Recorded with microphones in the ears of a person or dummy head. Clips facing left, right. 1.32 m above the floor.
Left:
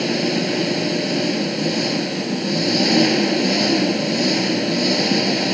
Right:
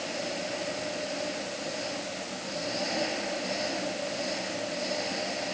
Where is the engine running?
90° left.